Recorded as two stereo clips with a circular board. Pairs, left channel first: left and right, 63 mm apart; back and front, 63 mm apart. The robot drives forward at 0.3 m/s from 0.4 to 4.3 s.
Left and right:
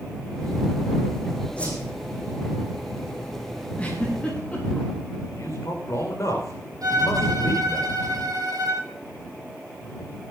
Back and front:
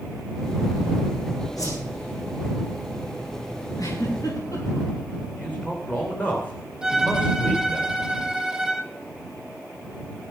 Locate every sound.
1.6 s a whoosh: 160° left, 8.5 m
3.8 s a giggle: 160° left, 9 m
5.4 s a man speaking: 120° left, 9.5 m
6.8 s a violin: 80° right, 4.5 m